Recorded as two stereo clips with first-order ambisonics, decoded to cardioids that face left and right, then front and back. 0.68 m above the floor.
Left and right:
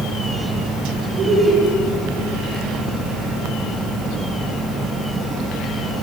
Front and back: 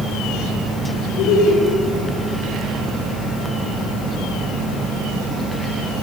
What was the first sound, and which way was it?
Laughter, 30° right.